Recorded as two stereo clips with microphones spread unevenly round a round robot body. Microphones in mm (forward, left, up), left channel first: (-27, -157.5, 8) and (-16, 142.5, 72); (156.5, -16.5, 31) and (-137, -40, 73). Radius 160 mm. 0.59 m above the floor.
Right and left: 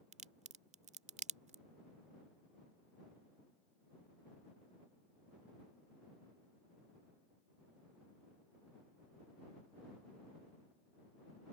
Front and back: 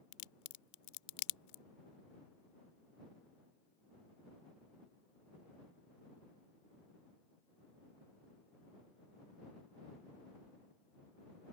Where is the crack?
15° left.